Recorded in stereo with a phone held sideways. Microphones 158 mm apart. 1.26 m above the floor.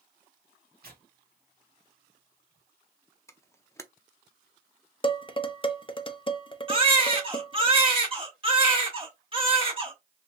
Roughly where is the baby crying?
Right.